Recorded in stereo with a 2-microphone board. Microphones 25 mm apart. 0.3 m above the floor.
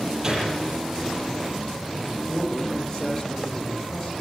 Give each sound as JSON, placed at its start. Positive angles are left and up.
{"t": 0.2, "sound": "a gunshot", "side_deg": -25, "distance_m": 8.0}
{"t": 2.1, "sound": "a man speaking", "side_deg": 25, "distance_m": 8.5}